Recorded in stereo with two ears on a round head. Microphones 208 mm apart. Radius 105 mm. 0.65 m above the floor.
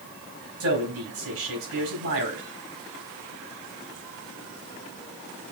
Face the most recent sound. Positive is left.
turn(degrees=-60)  # may be behind; listen again after turning